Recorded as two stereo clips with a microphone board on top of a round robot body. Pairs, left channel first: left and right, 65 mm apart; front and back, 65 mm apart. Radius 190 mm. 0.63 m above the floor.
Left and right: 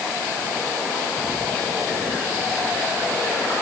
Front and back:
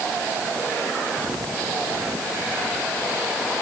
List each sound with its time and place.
Only background noise.